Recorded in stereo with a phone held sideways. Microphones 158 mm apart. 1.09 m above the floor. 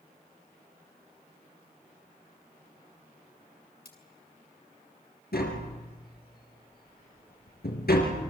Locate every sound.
3.9 s cutlery clinking: 80° left, 3.5 m
5.3 s tapping: 80° left, 4.5 m